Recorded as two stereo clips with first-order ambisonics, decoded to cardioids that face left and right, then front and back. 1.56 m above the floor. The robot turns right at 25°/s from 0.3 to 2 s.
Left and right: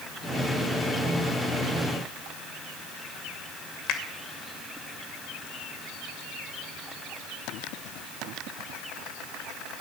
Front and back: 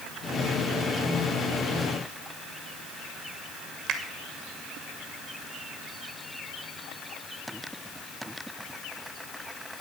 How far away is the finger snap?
About 2.5 m.